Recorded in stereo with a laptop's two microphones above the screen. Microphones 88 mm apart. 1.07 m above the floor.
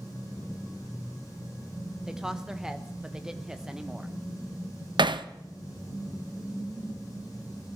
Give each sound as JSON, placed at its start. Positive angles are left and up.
{"t": 2.1, "sound": "a woman speaking", "side_deg": -10, "distance_m": 0.9}
{"t": 5.0, "sound": "hammering", "side_deg": -65, "distance_m": 0.7}